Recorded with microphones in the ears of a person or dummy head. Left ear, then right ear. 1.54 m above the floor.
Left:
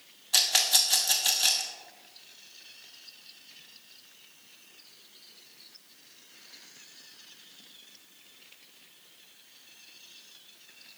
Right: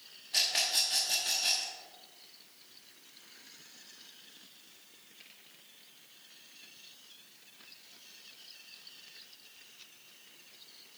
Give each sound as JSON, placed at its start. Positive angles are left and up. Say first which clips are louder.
{"t": 0.3, "sound": "a rattle", "louder": "left 6 dB", "side_deg": 40, "distance_m": 1.3}